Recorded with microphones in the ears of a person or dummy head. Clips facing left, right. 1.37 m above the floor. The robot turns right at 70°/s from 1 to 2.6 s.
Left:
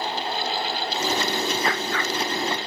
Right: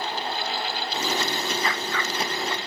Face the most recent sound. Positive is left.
turn(degrees=-40)